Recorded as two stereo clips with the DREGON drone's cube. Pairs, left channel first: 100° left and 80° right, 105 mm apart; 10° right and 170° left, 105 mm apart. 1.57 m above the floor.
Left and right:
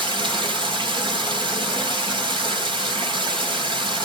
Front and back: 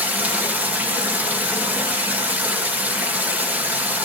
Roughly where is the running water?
Behind right.